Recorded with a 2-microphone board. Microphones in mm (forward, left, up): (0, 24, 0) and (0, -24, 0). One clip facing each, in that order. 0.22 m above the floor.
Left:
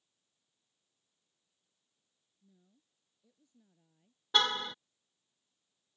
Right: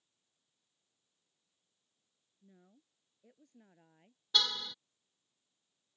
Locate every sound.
2.4 s a woman speaking: 55° right (ahead or behind); by 4.2 s 60° right (ahead or behind)
4.3 s a car horn: 35° left (ahead or behind)